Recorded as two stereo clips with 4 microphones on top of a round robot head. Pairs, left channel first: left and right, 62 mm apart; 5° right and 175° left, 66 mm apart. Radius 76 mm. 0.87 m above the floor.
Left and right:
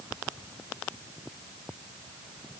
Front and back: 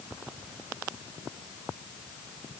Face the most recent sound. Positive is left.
No sound to turn to.